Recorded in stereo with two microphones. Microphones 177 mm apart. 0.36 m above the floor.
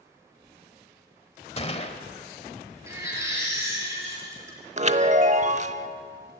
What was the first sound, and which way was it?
A gunshot, 35° left (ahead or behind).